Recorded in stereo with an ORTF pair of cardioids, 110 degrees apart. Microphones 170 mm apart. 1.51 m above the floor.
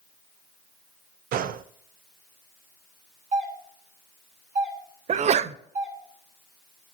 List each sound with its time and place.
1.3 s a gunshot: 60° right, 0.7 m
3.3 s a doorbell: 45° right, 3.5 m
5.1 s a sneeze: 40° right, 0.6 m